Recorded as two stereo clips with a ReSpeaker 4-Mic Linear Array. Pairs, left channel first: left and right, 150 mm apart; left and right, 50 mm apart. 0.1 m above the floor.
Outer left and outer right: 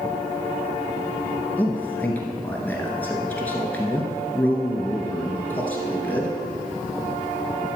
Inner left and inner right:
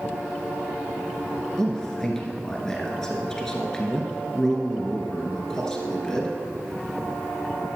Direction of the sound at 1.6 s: 10° left (ahead or behind).